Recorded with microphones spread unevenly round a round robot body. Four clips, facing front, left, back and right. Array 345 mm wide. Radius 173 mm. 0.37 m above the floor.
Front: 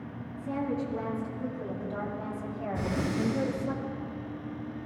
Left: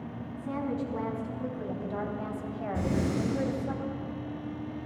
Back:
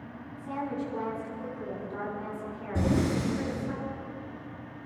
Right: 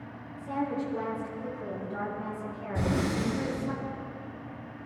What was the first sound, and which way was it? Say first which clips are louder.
A woman speaking: right 1 dB, front 2 dB; 75° left.